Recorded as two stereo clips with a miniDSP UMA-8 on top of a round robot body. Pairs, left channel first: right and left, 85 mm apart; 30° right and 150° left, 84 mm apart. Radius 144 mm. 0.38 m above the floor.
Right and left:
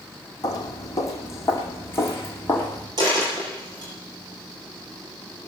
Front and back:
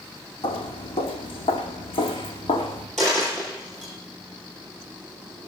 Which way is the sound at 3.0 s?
50° left.